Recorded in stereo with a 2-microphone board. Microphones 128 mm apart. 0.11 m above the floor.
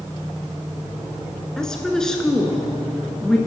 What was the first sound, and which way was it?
A woman speaking, 5° left (ahead or behind).